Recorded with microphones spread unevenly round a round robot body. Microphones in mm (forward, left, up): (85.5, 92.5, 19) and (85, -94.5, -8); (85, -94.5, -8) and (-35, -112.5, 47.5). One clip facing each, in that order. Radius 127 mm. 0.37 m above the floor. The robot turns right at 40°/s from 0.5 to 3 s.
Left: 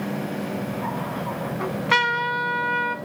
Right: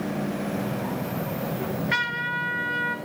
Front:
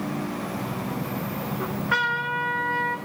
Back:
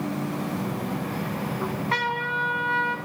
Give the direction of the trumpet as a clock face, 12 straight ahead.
9 o'clock.